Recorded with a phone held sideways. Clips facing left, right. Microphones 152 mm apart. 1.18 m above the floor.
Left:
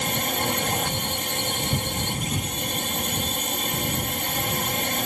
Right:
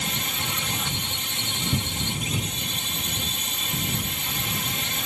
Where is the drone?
50° left (ahead or behind).